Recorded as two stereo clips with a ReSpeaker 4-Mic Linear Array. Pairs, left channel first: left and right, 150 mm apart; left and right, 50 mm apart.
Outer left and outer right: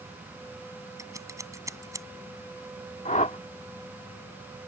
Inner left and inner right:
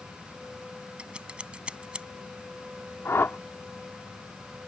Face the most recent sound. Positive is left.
turn(degrees=55)  # may be behind; listen again after turning